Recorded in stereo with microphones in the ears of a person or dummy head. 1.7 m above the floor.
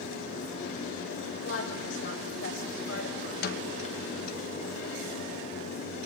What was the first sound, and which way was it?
A woman speaking, 85° left.